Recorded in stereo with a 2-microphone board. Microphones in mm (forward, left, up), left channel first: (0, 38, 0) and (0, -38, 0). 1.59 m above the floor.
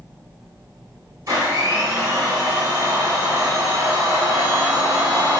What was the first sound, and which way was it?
A blender, 55° right (ahead or behind).